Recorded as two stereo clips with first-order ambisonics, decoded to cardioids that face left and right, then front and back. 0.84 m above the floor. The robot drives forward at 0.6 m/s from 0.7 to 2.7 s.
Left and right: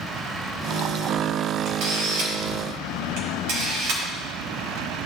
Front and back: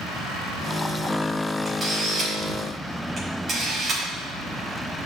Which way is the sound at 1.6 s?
100° right.